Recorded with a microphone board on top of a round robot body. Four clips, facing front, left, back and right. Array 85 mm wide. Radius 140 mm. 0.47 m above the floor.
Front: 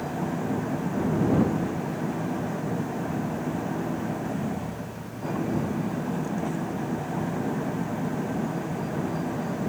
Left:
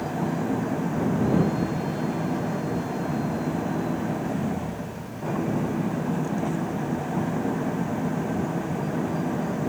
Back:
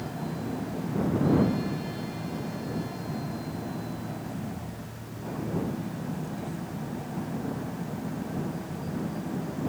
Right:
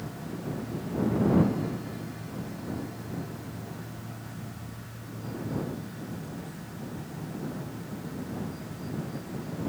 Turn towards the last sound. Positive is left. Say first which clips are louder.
# left 11 dB, front 5 dB
turn(degrees=65)